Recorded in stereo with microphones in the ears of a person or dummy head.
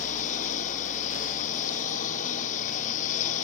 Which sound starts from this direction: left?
A lawn mower, at 0.0 s.